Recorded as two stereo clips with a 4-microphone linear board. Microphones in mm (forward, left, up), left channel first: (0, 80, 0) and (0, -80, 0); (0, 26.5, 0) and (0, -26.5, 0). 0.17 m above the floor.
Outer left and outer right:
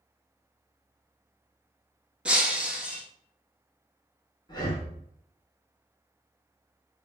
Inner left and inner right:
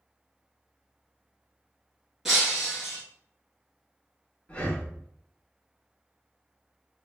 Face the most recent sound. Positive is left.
turn(degrees=25)  # may be behind; listen again after turning